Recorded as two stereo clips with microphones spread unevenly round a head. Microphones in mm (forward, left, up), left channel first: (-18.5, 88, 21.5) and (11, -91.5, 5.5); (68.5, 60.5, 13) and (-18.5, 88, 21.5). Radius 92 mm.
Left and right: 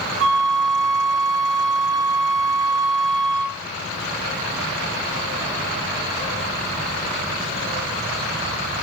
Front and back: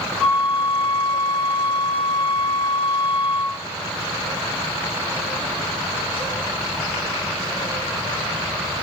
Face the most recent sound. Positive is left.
turn(degrees=-115)